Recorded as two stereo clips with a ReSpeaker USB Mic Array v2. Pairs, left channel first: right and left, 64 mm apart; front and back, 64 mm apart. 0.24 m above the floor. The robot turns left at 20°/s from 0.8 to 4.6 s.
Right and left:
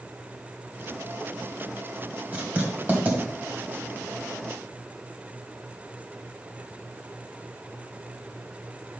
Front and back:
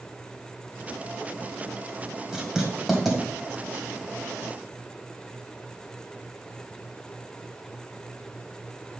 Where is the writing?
115° left, 1.6 m; by 3.2 s 95° left, 1.6 m.